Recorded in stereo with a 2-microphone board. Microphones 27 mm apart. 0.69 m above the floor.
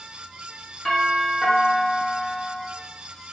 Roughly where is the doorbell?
Left.